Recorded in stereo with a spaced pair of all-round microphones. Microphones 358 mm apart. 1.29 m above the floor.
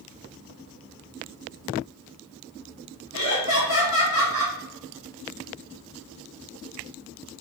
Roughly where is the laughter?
Left.